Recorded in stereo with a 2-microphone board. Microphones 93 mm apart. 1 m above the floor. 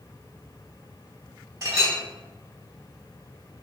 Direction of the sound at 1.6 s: 35° right (ahead or behind).